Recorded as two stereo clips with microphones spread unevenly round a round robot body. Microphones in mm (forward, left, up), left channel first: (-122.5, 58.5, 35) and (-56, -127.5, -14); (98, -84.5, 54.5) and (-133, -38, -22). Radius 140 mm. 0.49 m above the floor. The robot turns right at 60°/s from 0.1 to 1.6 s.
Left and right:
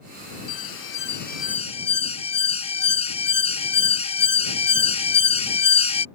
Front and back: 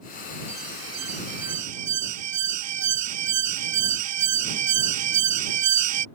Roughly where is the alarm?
Left.